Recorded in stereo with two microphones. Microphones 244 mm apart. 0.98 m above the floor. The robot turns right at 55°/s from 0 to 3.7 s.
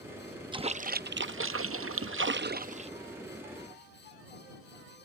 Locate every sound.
0.5 s a splash: 160° right; by 2.9 s 25° right